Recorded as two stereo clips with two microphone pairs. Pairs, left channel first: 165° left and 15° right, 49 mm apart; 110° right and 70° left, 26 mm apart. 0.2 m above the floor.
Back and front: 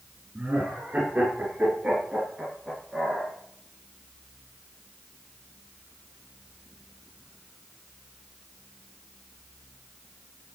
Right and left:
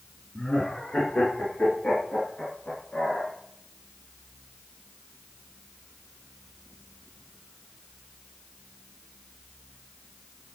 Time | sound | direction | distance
0.3 | laughter | 60° right | 3 m